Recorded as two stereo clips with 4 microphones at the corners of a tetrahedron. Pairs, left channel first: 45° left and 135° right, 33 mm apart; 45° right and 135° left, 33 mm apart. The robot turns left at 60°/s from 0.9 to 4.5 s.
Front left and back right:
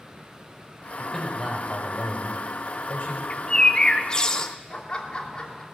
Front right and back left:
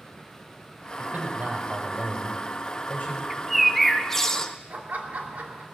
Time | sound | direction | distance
1.0 | a man speaking | 115° left | 4.5 m
3.3 | a bird | 65° left | 0.8 m
4.7 | laughter | 105° left | 2.5 m